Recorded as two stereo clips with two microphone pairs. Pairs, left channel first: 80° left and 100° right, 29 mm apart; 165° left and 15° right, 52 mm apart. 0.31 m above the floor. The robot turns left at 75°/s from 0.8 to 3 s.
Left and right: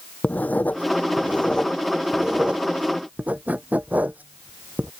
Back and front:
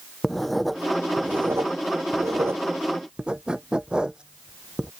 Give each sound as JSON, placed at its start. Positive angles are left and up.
{"t": 0.2, "sound": "writing", "azimuth_deg": 75}